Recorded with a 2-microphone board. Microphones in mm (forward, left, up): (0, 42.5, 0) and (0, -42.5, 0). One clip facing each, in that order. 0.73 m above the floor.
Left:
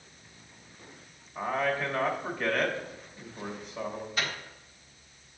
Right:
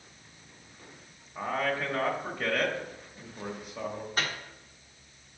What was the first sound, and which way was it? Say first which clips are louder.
A man speaking: left 1 dB; 5° right (ahead or behind).